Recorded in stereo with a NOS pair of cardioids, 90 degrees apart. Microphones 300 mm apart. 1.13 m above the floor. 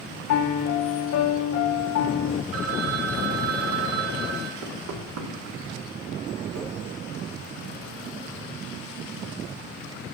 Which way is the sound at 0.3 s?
70° left.